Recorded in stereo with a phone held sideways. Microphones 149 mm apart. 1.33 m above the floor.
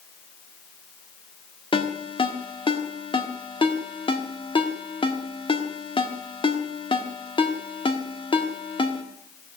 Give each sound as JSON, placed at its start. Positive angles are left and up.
{"t": 1.7, "sound": "a ringtone", "side_deg": 35, "distance_m": 1.6}